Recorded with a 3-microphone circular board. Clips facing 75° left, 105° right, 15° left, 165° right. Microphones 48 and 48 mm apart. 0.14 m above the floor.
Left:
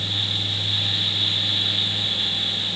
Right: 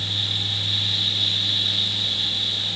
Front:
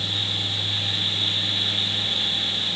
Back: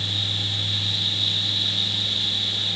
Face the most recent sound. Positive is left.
No sound to turn to.